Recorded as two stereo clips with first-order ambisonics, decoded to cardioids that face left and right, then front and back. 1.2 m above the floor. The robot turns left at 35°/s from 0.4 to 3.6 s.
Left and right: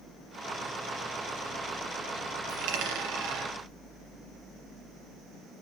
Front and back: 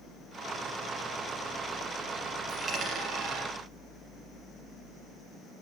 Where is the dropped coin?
95° right, 4 m; by 3.5 s 135° right, 4 m.